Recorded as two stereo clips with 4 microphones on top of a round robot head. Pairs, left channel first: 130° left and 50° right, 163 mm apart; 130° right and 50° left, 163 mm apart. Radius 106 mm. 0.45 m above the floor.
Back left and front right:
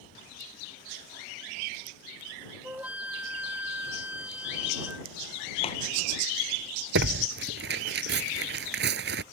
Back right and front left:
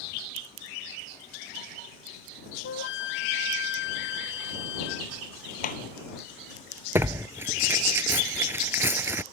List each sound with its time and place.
2.6 s a flute: 130° right
5.6 s a clap: 175° right
7.0 s tearing paper: 30° right